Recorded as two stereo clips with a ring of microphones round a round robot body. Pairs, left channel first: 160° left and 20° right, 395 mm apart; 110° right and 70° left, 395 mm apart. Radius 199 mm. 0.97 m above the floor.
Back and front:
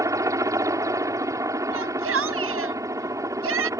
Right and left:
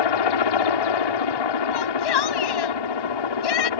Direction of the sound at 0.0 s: 105° right.